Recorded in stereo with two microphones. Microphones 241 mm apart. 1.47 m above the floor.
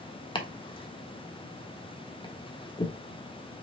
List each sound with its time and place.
0.3 s chopping: 20° left (ahead or behind), 1.1 m